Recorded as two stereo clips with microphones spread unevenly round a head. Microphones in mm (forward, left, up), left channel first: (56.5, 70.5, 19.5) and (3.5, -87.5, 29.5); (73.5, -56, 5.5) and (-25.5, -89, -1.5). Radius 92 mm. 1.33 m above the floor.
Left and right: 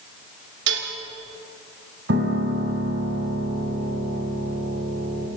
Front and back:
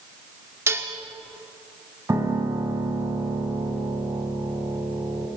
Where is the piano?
100° right, 3 m.